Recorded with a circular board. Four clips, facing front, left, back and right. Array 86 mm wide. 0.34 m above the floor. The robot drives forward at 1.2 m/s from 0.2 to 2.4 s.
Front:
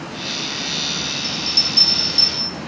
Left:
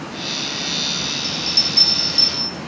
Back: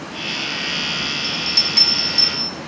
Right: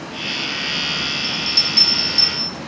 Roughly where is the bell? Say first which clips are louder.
Right 1 dB, back 1 dB; behind right.